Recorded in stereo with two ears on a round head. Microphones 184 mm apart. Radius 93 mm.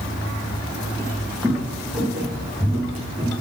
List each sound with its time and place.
1.0 s footsteps: 15° left (ahead or behind), 1.3 m; by 3.3 s 20° right (ahead or behind), 4 m